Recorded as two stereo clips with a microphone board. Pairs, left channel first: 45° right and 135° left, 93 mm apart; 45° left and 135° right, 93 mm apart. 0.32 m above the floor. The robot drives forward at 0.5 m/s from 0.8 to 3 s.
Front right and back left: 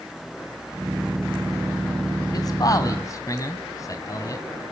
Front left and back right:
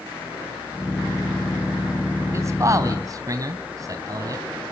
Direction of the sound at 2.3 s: 80° right.